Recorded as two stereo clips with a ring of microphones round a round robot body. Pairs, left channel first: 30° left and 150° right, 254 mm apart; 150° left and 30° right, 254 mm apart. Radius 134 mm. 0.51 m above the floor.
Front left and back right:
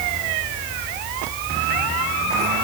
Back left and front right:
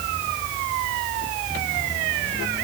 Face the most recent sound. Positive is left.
No sound to turn to.